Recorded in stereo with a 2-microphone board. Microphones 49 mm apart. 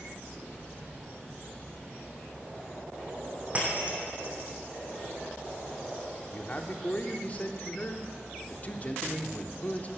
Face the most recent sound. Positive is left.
turn(degrees=35)  # may be behind; listen again after turning